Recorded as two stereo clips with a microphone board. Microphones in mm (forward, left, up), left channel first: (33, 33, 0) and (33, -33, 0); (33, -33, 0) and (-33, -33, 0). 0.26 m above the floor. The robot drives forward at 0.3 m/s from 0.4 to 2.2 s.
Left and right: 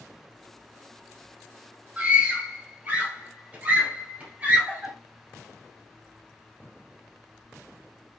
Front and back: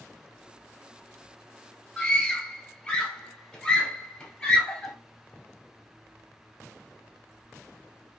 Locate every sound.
2.0 s a scream: 65° right, 1.3 m; by 4.9 s 70° right, 1.3 m